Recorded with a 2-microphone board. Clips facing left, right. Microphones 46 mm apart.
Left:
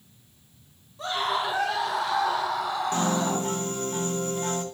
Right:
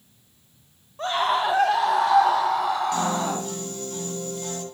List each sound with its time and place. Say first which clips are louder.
1.0 s a scream: right 4 dB; 50° right (ahead or behind), 2.0 m
2.9 s a piano: right 1 dB; 30° left (ahead or behind), 3.5 m